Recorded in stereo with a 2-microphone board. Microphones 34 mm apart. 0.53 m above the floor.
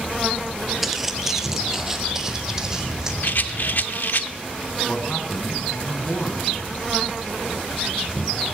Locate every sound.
0.8 s footsteps: 5° right (ahead or behind), 0.6 m; by 3.1 s 15° right (ahead or behind), 1.9 m
3.2 s a rattle: 60° left (ahead or behind), 0.6 m
4.8 s a man speaking: 40° left (ahead or behind), 3.5 m